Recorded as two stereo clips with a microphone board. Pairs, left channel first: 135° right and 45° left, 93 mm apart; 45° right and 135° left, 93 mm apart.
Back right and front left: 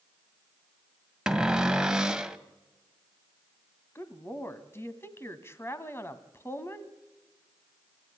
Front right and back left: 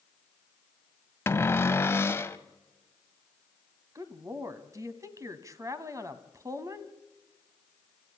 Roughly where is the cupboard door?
Ahead right.